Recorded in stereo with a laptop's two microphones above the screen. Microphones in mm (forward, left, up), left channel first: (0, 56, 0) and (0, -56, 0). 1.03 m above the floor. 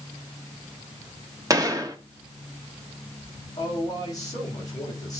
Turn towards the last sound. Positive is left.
turn(degrees=35)  # may be behind; listen again after turning